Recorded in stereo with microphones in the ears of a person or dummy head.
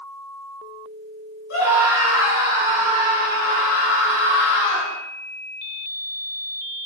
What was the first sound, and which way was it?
A scream, 70° left (ahead or behind).